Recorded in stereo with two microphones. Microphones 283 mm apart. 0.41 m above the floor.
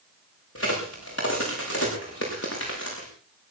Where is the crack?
55° left (ahead or behind), 7 m.